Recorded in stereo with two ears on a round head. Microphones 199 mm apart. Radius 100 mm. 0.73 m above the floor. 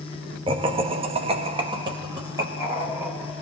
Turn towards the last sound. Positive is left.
turn(degrees=-10)  # may be behind; listen again after turning